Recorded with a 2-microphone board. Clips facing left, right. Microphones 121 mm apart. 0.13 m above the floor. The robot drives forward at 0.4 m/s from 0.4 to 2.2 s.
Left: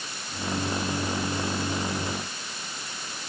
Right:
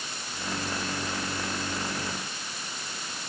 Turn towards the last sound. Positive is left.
No sound to turn to.